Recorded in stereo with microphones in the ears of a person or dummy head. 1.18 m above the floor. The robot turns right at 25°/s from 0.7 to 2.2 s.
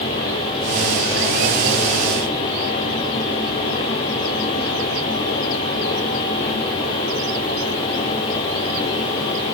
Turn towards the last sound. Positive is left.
No sound to turn to.